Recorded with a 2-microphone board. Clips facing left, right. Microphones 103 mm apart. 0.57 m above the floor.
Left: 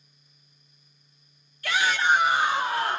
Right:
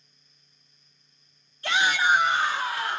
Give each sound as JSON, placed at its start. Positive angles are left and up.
{"t": 1.6, "sound": "a shout", "side_deg": -30, "distance_m": 0.9}